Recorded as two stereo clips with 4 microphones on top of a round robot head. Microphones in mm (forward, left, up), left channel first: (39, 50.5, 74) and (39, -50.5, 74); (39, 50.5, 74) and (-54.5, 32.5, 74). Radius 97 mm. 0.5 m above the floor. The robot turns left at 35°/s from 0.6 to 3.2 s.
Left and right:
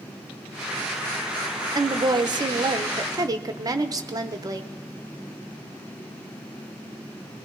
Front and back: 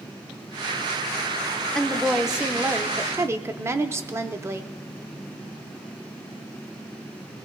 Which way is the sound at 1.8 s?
70° right.